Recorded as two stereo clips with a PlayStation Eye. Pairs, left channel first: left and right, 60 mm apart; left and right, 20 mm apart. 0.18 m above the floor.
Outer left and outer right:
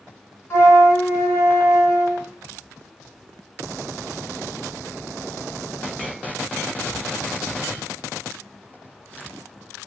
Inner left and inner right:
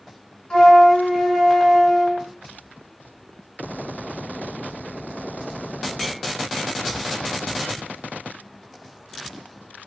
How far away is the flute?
About 2.5 m.